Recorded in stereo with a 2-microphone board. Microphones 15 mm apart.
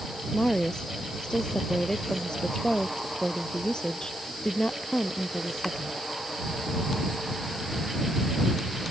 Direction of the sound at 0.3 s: 55° left (ahead or behind).